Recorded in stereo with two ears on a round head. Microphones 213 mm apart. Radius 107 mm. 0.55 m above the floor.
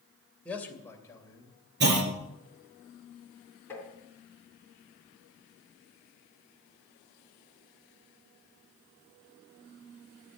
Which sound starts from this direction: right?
A clunk, at 1.8 s.